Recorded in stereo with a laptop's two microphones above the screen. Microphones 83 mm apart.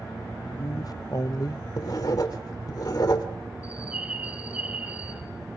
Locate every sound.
0.4 s a man speaking: 50° left (ahead or behind), 0.6 m
1.8 s writing: 50° left (ahead or behind), 2 m
3.6 s a bird: 20° right (ahead or behind), 3 m